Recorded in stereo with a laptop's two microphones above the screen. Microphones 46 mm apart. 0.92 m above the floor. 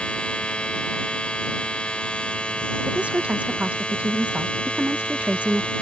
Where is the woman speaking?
30° right (ahead or behind).